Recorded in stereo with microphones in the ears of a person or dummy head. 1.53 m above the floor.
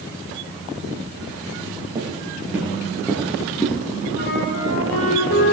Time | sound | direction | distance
1.9 | footsteps | 15° right (ahead or behind) | 2.5 m
4.1 | a flute | 70° left (ahead or behind) | 2.5 m